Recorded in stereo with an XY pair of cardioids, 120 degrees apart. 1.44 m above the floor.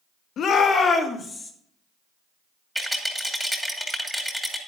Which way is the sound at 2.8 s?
Straight ahead.